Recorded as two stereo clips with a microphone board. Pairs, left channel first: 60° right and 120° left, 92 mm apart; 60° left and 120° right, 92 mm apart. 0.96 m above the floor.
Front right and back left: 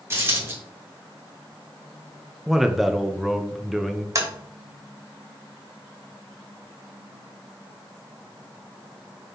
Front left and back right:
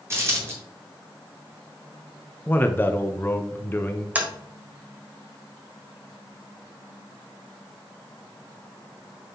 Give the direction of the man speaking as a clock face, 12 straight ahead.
11 o'clock.